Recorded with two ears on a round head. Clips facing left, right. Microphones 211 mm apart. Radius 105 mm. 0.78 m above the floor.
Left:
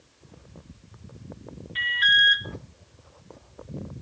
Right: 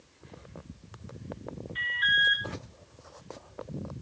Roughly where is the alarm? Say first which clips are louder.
Left 4 dB; left.